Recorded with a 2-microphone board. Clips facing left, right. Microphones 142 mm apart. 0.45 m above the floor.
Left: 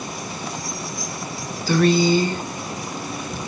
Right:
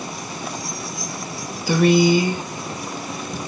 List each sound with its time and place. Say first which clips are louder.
1.7 s a woman speaking: right 2 dB; 15° right (ahead or behind), 1.1 m